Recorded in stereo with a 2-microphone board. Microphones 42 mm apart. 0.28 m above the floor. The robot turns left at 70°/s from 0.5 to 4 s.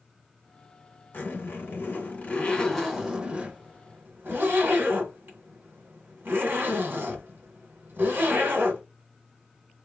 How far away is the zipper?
About 2 m.